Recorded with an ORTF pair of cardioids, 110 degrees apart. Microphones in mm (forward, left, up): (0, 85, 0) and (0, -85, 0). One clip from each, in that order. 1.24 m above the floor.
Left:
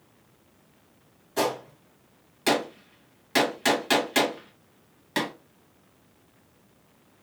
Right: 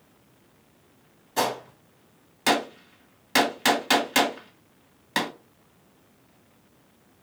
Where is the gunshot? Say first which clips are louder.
Right 1 dB; 20° right, 1.2 m.